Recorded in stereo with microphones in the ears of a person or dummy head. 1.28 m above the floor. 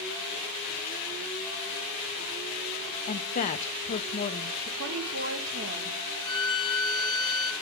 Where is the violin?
20° left (ahead or behind), 2 m.